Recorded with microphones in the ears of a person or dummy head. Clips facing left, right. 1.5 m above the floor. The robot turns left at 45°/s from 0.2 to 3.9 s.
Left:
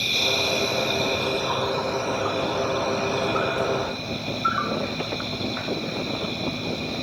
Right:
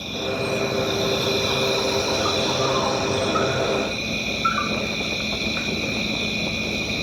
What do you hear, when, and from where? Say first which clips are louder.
0.0 s an insect: right 2 dB; 25° left, 1.2 m; by 7.0 s 140° right, 1.2 m